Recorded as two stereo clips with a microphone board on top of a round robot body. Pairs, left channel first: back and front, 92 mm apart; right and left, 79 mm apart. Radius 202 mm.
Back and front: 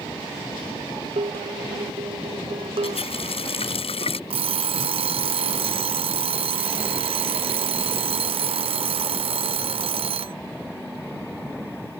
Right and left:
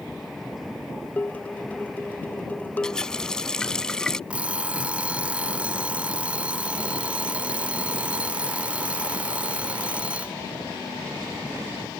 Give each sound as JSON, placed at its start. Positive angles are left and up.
{"t": 1.2, "sound": "dishes clattering", "azimuth_deg": -20}
{"t": 2.8, "sound": "a running tap", "azimuth_deg": -170}
{"t": 4.3, "sound": "an alarm clock", "azimuth_deg": 15}